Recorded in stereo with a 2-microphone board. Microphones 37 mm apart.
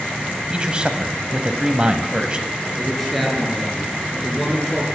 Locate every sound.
0.5 s a man speaking: 25° right (ahead or behind), 1.1 m
2.8 s a man speaking: centre (ahead or behind), 4 m